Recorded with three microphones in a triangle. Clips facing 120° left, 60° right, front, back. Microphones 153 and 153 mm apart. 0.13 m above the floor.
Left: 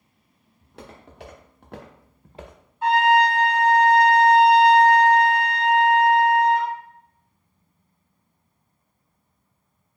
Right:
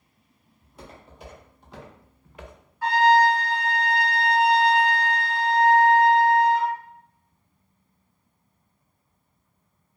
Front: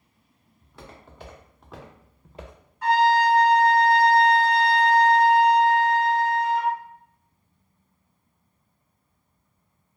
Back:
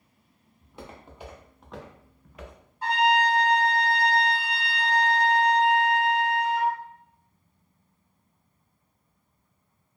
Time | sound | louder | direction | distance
0.6 | footsteps | left 2 dB, back 2 dB | 110° left | 1.4 m
2.8 | a trumpet | even, front 4 dB | 160° left | 1.5 m